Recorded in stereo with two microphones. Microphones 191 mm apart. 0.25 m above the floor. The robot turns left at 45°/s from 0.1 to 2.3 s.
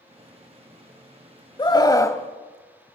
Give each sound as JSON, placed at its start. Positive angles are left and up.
{"t": 1.6, "sound": "a scream", "side_deg": 25, "distance_m": 1.0}